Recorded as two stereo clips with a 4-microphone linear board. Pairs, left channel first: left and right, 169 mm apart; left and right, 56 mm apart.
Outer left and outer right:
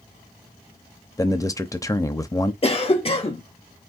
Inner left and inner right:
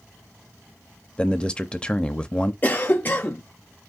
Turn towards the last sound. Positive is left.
turn(degrees=35)  # may be behind; listen again after turning